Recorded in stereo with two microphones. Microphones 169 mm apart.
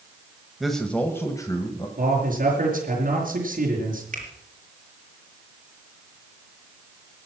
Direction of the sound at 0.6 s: Centre (ahead or behind).